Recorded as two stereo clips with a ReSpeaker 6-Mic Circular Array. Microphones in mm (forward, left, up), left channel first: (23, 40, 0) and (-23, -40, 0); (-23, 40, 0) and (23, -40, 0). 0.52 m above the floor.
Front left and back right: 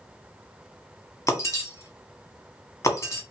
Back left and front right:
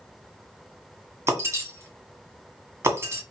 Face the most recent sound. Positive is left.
turn(degrees=5)